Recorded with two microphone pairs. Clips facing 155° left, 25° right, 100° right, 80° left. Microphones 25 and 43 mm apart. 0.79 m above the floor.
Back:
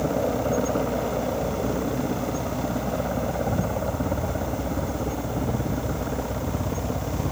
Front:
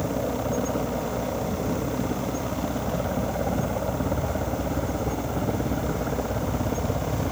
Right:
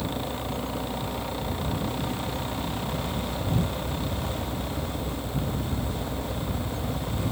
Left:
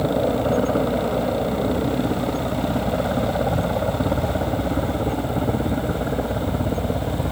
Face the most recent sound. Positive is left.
turn(degrees=45)